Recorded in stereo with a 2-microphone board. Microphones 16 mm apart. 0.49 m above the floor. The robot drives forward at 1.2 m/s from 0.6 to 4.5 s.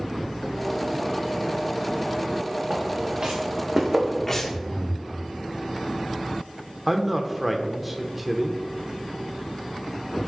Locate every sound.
2.7 s footsteps: 45° right (ahead or behind), 3 m; by 4.2 s 20° right (ahead or behind), 2 m
4.3 s breathing: 20° left (ahead or behind), 1.1 m; by 5.1 s 25° left (ahead or behind), 1.0 m
6.9 s a man speaking: 10° right (ahead or behind), 1.0 m